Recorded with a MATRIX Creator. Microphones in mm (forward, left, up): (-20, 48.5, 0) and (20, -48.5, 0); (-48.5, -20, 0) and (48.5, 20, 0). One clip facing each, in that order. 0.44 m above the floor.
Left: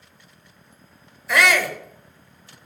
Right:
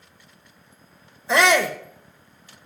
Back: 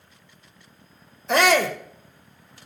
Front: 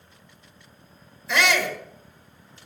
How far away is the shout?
About 1.3 m.